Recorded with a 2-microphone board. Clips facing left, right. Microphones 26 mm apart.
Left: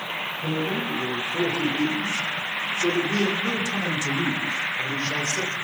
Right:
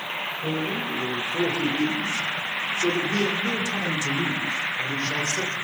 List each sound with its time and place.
0.4 s a man speaking: 20° right (ahead or behind), 2.5 m; by 5.5 s 25° left (ahead or behind), 2.0 m